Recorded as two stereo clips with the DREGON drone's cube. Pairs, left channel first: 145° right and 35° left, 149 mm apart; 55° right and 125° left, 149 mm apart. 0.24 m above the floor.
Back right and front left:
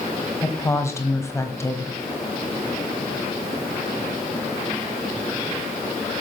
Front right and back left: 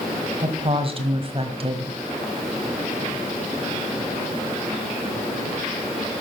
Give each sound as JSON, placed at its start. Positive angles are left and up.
{"t": 0.4, "sound": "a woman speaking", "azimuth_deg": 150, "distance_m": 1.4}